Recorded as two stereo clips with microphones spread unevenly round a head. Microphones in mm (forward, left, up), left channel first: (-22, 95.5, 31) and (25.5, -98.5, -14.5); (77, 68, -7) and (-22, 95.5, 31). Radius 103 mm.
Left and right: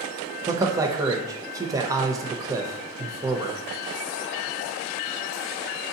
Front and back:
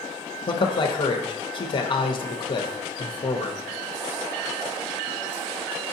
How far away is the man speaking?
About 0.6 m.